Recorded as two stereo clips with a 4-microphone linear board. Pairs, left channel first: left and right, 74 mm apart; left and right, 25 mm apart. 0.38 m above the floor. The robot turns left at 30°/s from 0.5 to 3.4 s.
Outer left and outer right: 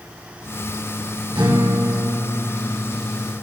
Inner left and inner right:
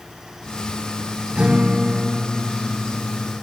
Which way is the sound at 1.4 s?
80° right.